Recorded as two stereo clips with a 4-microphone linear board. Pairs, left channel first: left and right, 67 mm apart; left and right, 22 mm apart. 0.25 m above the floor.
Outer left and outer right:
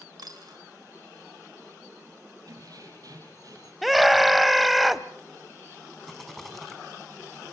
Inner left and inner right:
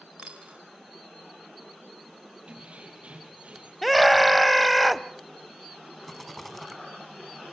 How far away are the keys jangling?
About 5.5 m.